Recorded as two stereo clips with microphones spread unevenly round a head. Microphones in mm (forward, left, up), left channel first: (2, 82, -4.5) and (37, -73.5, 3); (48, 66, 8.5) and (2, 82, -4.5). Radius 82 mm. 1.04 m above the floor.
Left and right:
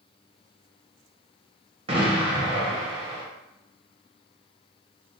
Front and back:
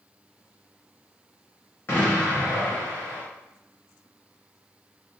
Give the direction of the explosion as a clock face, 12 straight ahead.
2 o'clock.